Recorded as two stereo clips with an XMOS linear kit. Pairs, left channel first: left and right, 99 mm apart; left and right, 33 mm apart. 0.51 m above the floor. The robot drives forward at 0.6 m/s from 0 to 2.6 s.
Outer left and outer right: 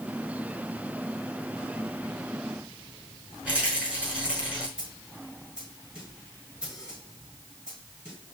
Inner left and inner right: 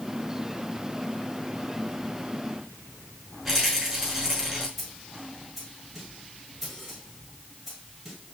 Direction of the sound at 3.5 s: 10° right (ahead or behind).